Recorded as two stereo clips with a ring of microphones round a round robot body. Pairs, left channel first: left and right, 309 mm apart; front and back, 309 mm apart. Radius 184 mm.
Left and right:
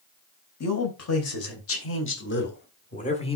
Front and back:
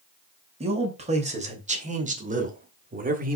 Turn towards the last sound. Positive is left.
turn(degrees=150)